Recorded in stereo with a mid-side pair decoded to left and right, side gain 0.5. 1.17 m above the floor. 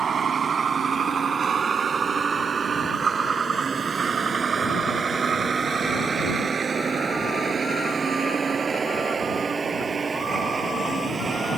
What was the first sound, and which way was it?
A vehicle, 45° right.